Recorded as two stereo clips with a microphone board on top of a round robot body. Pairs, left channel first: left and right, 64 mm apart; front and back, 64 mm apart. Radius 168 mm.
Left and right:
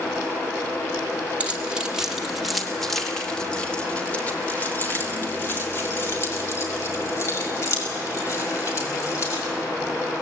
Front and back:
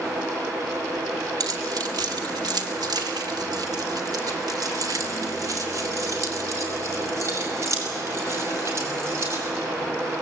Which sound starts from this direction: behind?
Keys jangling, at 1.4 s.